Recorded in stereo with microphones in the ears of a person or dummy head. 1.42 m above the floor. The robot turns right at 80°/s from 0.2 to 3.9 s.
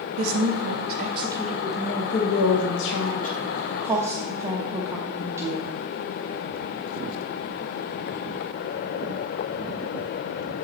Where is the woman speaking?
110° right, 0.7 m; by 5.7 s 175° right, 0.7 m.